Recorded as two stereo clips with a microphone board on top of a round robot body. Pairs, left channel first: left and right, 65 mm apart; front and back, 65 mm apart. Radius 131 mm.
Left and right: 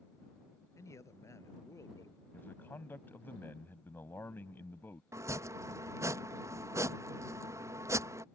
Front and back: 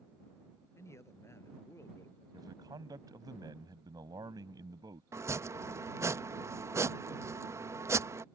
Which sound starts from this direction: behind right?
Chopping, at 5.1 s.